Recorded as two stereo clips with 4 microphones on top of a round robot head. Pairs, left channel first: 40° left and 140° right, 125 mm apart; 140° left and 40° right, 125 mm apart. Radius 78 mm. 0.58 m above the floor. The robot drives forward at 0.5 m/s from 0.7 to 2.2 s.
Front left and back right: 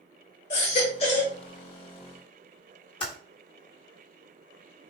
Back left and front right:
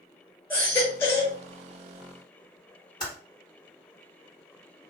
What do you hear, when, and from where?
0.5 s a baby crying: 65° left, 1.8 m; by 1.4 s 75° left, 1.6 m
3.0 s typing on a keyboard: 80° left, 2 m